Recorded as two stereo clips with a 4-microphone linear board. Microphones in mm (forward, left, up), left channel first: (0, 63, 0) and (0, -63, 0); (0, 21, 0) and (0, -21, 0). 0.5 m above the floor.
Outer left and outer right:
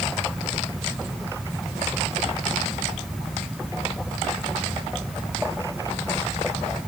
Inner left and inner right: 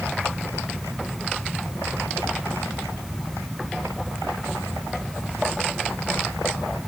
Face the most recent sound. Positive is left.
No sound to turn to.